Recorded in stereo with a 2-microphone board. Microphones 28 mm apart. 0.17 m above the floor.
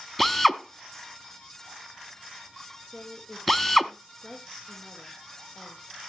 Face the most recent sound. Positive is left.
turn(degrees=45)  # may be behind; listen again after turning